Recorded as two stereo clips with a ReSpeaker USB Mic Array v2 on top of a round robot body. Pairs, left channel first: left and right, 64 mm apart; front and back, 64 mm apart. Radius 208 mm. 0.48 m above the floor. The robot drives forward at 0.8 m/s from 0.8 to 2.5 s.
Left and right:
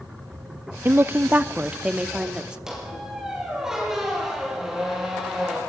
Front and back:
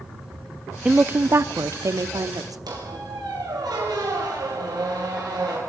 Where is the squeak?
175° right, 5.5 m.